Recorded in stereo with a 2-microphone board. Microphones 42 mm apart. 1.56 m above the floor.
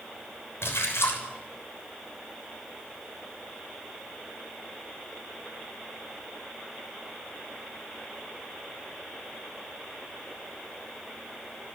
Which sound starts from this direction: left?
A splash, at 0.6 s.